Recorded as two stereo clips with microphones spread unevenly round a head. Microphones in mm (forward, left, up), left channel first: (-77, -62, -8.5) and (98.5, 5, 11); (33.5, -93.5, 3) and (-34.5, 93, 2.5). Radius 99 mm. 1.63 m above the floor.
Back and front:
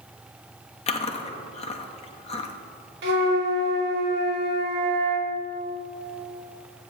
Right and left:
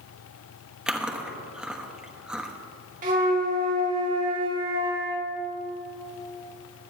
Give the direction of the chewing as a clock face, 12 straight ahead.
6 o'clock.